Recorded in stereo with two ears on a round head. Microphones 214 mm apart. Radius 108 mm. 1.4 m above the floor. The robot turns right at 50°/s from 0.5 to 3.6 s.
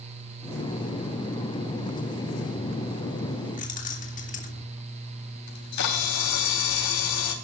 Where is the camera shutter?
85° left, 3.5 m.